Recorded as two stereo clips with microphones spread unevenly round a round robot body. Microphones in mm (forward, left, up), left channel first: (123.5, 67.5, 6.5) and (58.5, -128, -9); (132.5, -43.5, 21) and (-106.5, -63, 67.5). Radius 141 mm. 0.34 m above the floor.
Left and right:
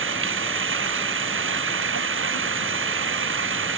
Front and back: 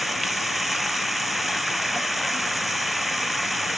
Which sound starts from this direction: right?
Running water, at 0.0 s.